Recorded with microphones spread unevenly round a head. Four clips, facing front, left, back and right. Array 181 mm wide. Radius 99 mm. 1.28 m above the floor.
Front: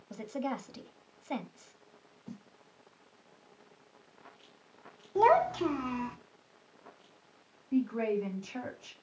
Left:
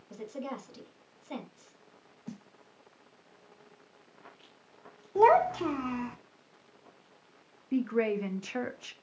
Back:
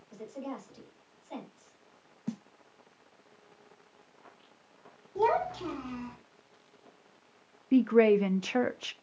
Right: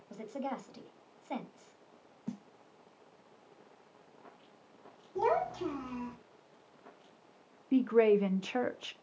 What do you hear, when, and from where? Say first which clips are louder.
0.1 s a woman speaking: even, front 4 dB; 15° left, 2.5 m
2.3 s a snare drum: right 2 dB, back 9 dB; straight behind, 0.8 m
5.2 s a child speaking: left 9 dB, front 4 dB; 60° left, 1.7 m
7.7 s a woman speaking: right 4 dB, back 8 dB; 160° right, 0.7 m